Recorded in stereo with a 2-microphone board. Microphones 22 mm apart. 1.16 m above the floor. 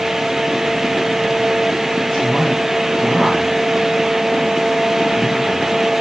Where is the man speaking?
25° left (ahead or behind), 7 m.